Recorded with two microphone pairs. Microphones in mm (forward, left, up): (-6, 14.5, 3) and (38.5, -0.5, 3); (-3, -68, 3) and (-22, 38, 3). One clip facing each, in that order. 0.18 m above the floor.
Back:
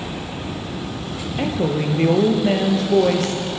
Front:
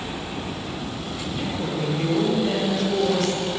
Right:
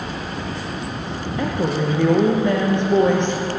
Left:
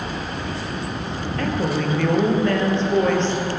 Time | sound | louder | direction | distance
1.4 | a woman speaking | back 7 dB, right 1 dB | 150° right | 4.5 m